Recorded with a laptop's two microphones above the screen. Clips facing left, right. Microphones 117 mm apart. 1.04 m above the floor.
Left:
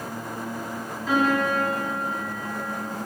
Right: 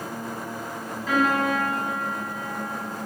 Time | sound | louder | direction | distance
1.1 | a piano | even | centre (ahead or behind) | 6 m